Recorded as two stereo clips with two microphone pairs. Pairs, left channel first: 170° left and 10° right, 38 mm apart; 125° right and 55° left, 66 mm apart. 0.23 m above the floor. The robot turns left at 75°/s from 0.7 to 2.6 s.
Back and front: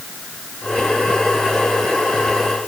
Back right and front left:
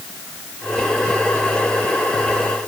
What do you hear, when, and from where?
Only background noise.